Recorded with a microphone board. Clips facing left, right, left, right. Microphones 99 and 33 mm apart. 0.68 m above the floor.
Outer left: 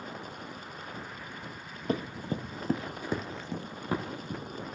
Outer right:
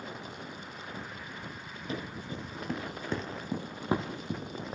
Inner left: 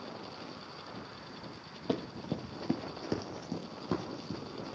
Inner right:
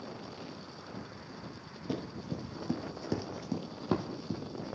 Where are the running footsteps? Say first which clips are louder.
Outer left 6 dB, inner left 3 dB; 50° left (ahead or behind), 1.4 m; by 4.7 s 30° right (ahead or behind), 2.5 m.